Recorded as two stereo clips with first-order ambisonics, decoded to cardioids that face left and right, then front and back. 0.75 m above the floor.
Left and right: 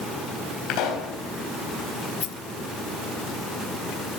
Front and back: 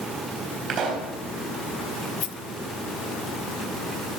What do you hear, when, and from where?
0.7 s a pop: 125° left, 4 m
2.2 s a rattle: 45° left, 0.6 m